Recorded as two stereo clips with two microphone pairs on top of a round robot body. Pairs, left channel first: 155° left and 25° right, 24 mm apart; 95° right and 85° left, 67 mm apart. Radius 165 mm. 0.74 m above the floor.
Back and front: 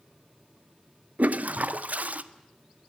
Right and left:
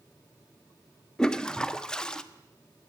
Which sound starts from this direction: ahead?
A toilet flushing, at 1.2 s.